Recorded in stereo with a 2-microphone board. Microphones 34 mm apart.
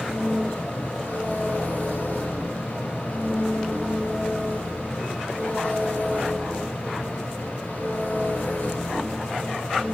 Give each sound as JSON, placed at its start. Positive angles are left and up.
{"t": 0.0, "sound": "an engine running", "side_deg": 75, "distance_m": 7.5}